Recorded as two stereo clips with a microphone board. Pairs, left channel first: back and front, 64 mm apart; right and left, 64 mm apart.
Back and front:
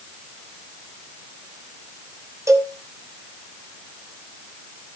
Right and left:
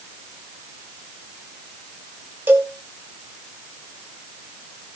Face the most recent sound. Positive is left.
turn(degrees=35)